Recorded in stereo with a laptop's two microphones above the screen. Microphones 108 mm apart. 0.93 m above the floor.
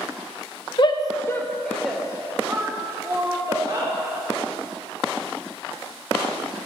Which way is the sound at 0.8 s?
50° left (ahead or behind).